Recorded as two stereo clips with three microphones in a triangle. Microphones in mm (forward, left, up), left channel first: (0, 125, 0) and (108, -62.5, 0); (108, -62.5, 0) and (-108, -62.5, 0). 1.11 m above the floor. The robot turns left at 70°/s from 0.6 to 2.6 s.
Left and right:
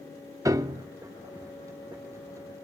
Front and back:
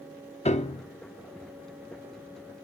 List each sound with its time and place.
0.5 s a piano: straight ahead, 0.7 m; by 0.8 s 20° right, 0.7 m